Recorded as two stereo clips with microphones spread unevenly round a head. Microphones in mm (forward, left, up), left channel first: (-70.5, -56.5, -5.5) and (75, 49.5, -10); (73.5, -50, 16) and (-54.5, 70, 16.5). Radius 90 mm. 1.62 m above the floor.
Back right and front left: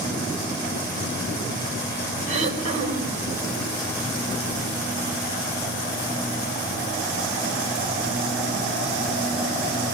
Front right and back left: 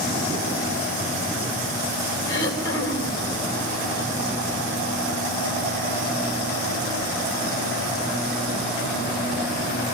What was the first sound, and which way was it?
Throat clearing, 20° right.